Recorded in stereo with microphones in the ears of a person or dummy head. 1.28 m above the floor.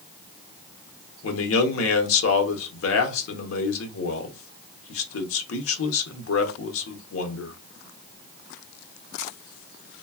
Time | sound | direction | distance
1.2 | a man speaking | 80° left | 0.9 m